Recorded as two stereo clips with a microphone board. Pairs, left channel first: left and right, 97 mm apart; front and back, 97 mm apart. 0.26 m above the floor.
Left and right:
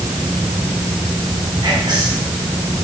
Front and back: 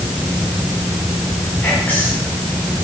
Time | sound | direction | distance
1.6 | whispering | 65° right | 1.9 m